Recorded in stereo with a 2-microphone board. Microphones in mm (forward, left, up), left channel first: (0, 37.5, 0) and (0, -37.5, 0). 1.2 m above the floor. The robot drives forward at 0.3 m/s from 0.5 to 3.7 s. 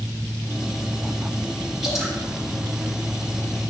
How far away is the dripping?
About 7 m.